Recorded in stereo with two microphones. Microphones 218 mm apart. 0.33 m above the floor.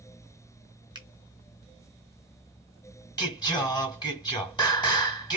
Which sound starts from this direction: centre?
A finger snap, at 0.9 s.